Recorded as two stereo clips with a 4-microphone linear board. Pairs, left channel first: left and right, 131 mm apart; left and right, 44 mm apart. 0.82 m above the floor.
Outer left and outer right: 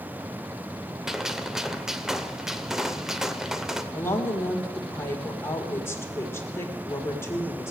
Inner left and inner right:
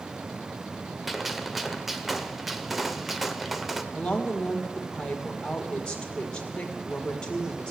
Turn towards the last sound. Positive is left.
turn(degrees=20)  # may be behind; listen again after turning